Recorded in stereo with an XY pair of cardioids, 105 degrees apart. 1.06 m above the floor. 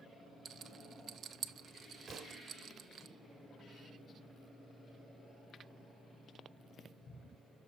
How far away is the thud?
About 1.3 m.